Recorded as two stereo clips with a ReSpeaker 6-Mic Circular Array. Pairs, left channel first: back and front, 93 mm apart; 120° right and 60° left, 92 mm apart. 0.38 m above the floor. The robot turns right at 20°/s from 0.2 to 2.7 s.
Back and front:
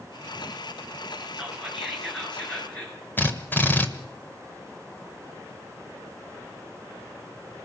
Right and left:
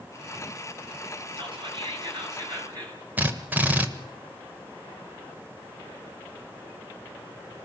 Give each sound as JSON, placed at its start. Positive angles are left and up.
{"t": 1.4, "sound": "whispering", "azimuth_deg": 80, "distance_m": 6.5}
{"t": 3.2, "sound": "a drill", "azimuth_deg": 120, "distance_m": 1.6}